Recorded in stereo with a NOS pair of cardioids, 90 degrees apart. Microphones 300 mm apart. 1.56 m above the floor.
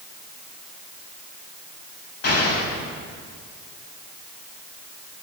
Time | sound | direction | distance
2.2 | an explosion | 55° left | 7 m